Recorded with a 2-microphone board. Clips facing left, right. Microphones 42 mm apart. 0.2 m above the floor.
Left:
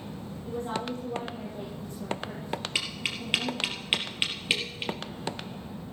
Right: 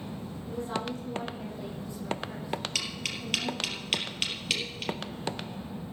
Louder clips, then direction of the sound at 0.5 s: Left 1 dB; 50° left (ahead or behind).